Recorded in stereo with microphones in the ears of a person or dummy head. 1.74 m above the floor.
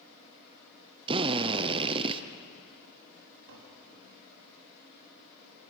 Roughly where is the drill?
Right.